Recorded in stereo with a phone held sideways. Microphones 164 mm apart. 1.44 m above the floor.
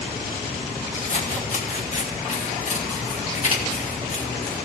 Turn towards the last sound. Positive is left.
turn(degrees=45)  # may be behind; listen again after turning